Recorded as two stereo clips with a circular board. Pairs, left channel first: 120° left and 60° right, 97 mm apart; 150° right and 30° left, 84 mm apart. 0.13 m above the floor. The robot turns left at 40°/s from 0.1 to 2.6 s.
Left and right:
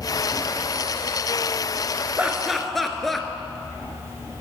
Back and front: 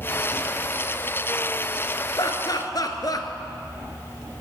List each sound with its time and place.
2.2 s laughter: 135° right, 1.5 m; by 3.3 s 150° right, 1.5 m